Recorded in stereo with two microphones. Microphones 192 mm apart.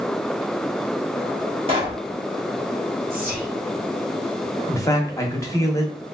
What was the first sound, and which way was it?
A pop, 30° right (ahead or behind).